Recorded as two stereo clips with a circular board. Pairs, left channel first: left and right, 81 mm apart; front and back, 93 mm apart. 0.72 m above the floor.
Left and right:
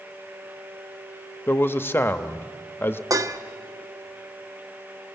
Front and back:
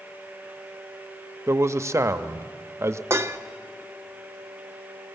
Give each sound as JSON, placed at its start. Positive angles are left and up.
{"t": 1.5, "sound": "a man speaking", "azimuth_deg": 140, "distance_m": 0.7}
{"t": 3.1, "sound": "dishes clattering", "azimuth_deg": -120, "distance_m": 0.6}